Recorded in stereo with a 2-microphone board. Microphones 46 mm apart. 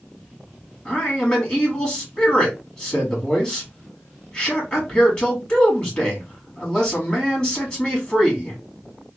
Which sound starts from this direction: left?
A man speaking, at 0.8 s.